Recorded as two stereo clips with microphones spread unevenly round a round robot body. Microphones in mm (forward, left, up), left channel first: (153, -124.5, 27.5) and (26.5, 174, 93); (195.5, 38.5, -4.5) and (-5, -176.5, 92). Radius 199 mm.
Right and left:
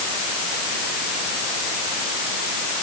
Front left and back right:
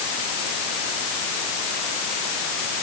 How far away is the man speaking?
No man speaking in this recording.